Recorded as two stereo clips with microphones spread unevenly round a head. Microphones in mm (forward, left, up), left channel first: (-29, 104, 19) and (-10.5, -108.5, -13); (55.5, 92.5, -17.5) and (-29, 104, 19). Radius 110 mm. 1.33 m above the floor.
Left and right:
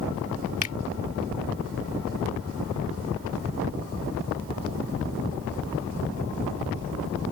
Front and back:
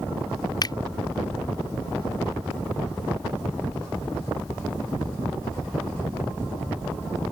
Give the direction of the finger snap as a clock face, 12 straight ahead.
11 o'clock.